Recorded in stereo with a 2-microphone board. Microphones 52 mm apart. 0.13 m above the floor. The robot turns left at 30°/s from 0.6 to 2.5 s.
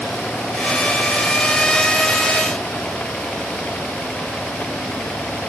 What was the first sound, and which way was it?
Only background noise.